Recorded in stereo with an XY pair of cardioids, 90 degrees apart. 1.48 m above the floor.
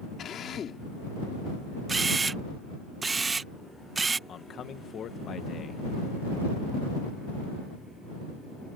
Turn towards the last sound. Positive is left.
turn(degrees=65)